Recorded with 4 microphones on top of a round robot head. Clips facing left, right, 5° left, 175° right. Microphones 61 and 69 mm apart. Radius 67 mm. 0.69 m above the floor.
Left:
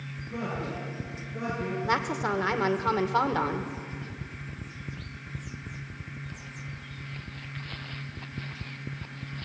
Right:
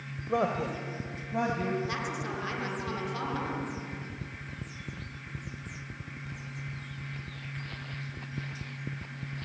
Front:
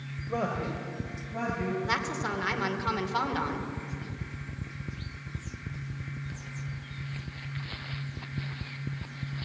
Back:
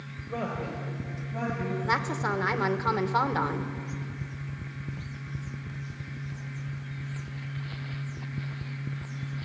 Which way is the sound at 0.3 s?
75° right.